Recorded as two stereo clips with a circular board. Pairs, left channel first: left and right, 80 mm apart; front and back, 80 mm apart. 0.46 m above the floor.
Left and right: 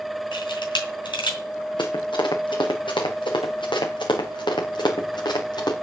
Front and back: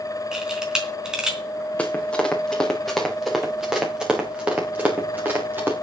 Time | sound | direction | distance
0.3 | a camera shutter | 100° left | 3.5 m
1.8 | running footsteps | 75° left | 4 m